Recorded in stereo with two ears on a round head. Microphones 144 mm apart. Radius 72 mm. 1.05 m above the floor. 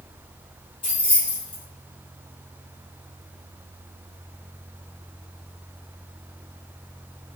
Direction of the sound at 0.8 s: 30° left (ahead or behind).